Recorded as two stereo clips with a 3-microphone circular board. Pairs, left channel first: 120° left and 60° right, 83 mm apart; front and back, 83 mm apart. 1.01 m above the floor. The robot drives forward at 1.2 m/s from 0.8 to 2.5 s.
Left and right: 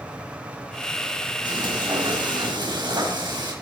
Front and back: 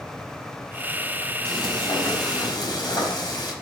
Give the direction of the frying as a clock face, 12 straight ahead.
1 o'clock.